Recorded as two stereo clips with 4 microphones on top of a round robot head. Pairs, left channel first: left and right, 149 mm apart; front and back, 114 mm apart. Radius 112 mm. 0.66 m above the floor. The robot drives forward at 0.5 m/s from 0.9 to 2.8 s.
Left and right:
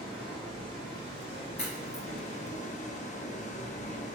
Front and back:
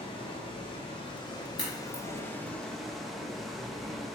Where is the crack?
35° left, 1.4 m; by 2.0 s 40° left, 1.2 m.